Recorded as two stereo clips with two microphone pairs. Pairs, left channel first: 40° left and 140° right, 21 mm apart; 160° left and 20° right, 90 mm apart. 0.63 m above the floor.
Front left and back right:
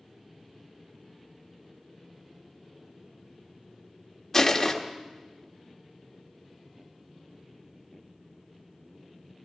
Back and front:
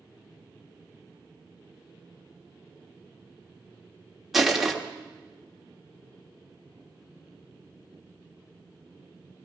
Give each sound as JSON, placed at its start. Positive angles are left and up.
{"t": 4.3, "sound": "crushing", "azimuth_deg": 65, "distance_m": 1.2}